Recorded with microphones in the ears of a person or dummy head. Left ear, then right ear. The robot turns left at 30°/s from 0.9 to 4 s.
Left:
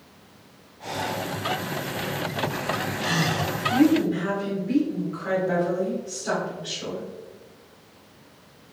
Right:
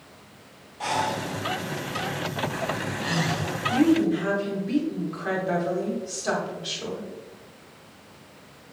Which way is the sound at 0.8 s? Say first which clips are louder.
Right 3 dB; 45° right (ahead or behind).